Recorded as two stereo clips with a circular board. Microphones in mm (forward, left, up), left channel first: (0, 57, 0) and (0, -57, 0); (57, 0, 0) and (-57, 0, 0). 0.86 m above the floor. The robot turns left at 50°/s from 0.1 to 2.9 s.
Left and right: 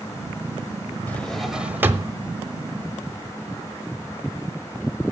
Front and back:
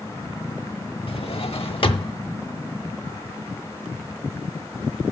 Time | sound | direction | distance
1.1 | a drawer | 15° left | 1.0 m